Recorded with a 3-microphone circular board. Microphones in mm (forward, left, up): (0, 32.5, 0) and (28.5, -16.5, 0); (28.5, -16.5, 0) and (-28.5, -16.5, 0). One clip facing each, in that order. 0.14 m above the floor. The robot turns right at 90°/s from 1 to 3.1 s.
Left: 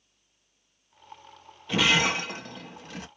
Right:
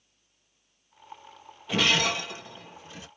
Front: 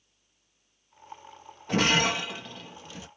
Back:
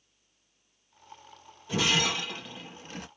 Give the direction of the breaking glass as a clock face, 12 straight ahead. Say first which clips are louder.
Left 2 dB, front 3 dB; 11 o'clock.